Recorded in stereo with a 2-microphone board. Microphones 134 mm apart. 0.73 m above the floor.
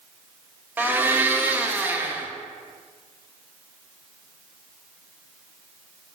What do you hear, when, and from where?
0.8 s a blender: 15° right (ahead or behind), 0.6 m